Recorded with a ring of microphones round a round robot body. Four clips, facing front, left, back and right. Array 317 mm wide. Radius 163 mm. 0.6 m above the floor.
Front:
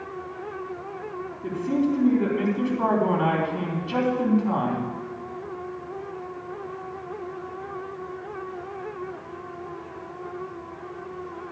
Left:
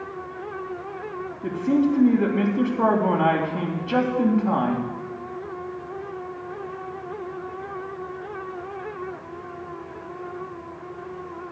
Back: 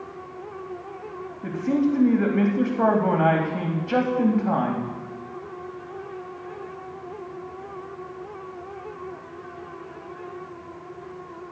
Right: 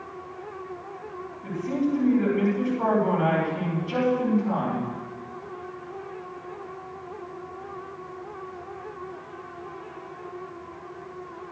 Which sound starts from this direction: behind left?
A man speaking, at 1.4 s.